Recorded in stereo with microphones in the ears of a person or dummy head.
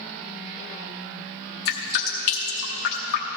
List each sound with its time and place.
1.6 s dripping: 60° left (ahead or behind), 1.1 m